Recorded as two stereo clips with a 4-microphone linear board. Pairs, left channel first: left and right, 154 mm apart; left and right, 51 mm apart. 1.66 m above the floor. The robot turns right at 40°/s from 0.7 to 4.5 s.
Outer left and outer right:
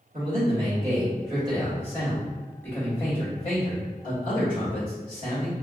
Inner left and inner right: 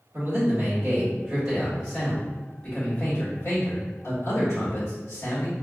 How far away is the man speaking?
About 2.0 m.